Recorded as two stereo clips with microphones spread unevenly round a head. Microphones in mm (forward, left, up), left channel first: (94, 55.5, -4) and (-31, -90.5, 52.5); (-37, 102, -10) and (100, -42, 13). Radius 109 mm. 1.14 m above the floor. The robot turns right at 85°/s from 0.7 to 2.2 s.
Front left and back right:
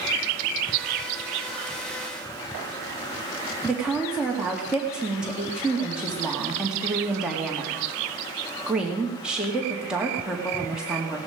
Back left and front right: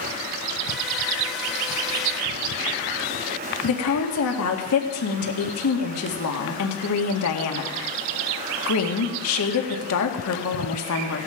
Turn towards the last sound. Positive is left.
turn(degrees=140)